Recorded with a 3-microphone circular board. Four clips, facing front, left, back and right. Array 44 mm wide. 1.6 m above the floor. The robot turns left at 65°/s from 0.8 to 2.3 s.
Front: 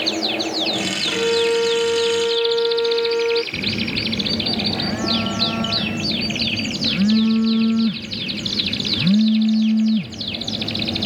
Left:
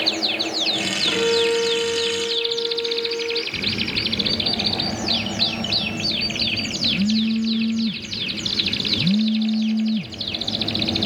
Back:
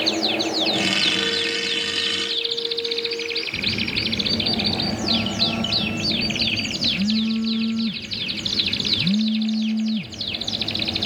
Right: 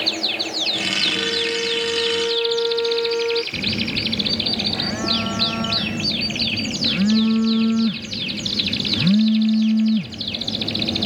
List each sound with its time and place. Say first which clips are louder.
1.1 s a violin: left 3 dB, front 5 dB; 55° left; by 3.4 s 25° right
3.5 s a phone buzzing: right 1 dB, front 1 dB; 55° right